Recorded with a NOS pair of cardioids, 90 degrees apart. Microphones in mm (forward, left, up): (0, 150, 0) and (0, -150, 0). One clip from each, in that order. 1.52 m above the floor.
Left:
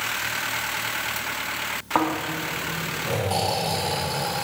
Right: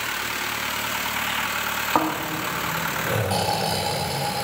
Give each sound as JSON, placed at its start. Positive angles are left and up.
{"t": 1.9, "sound": "snoring", "azimuth_deg": -10, "distance_m": 3.0}